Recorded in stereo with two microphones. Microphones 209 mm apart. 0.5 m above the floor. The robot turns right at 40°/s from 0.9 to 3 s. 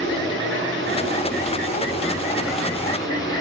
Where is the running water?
65° right, 5.5 m; by 3.4 s 20° left, 5.5 m.